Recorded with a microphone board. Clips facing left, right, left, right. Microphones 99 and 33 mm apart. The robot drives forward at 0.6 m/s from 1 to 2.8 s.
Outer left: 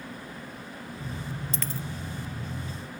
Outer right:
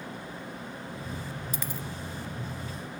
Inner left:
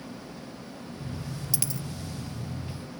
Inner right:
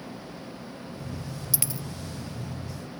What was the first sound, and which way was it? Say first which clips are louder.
A dropped coin: outer left 2 dB, even; 15° right (ahead or behind).